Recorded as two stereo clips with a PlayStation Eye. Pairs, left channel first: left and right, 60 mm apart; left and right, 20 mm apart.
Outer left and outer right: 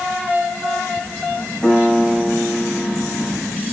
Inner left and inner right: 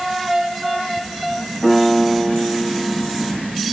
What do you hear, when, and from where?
1.6 s a piano: 15° left (ahead or behind), 9.5 m